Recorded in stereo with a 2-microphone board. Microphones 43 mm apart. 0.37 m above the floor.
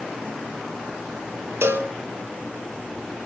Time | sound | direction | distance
1.6 | a cowbell | 70° right (ahead or behind) | 2 m